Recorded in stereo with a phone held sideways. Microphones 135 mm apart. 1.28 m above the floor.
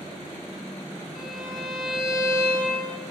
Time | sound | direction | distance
1.1 | a violin | 5° right (ahead or behind) | 5 m